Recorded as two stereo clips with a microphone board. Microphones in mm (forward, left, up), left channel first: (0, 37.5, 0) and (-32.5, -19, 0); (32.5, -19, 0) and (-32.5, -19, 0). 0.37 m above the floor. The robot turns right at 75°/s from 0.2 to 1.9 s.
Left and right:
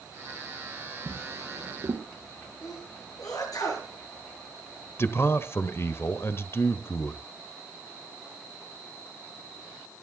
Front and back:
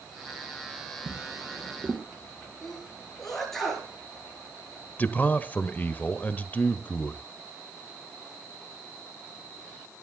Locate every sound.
1.1 s a drawer: 175° left, 4 m; by 2.1 s 120° right, 4 m
2.6 s a sneeze: 85° left, 8 m
5.0 s a man speaking: 45° left, 1.1 m